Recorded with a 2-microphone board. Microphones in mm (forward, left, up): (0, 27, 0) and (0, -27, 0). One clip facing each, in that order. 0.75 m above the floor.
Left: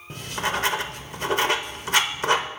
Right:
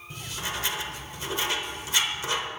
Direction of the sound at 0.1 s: 55° left (ahead or behind).